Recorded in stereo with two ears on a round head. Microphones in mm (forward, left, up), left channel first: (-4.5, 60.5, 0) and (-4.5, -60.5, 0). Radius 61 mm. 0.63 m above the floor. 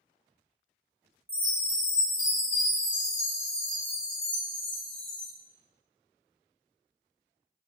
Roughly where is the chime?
Centre.